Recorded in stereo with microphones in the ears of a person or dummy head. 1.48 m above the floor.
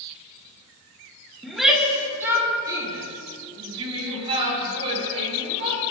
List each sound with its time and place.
1.4 s a shout: centre (ahead or behind), 2.5 m; by 5.8 s 40° right (ahead or behind), 7.5 m